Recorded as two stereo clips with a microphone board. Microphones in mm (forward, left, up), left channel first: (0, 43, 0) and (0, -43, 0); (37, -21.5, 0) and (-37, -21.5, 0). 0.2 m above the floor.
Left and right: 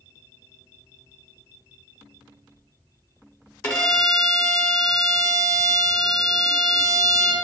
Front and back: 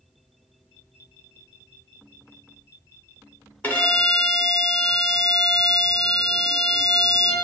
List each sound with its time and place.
3.6 s a violin: 45° left, 0.7 m